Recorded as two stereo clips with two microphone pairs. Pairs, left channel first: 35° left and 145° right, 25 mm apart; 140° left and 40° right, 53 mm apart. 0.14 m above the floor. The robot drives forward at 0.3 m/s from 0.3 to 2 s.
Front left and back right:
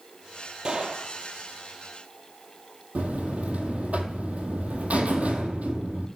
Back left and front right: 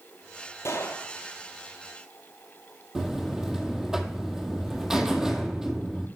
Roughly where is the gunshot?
Behind.